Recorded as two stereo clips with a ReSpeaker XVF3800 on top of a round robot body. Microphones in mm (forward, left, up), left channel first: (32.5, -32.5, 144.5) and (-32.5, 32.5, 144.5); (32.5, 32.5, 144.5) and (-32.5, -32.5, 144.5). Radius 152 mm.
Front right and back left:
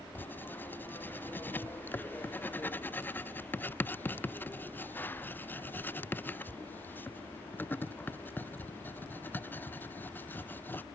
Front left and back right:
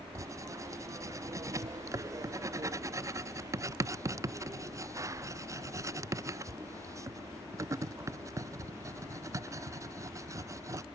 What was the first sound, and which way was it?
Writing, 105° right.